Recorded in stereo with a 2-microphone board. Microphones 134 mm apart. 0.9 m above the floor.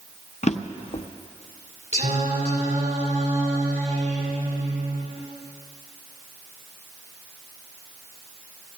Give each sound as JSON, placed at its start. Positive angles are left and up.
{"t": 0.4, "sound": "a drawer", "side_deg": 55, "distance_m": 0.6}
{"t": 1.9, "sound": "singing", "side_deg": -80, "distance_m": 2.5}